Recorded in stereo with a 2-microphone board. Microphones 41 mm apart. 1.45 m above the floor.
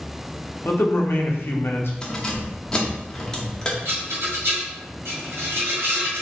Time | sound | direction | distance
0.7 | a man speaking | 70° left (ahead or behind) | 1.0 m
2.0 | keys jangling | 20° left (ahead or behind) | 0.9 m
3.9 | a rattle | 65° right (ahead or behind) | 2.5 m